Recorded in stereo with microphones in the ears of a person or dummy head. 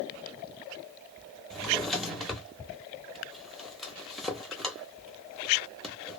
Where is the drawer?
5° right (ahead or behind), 0.8 m.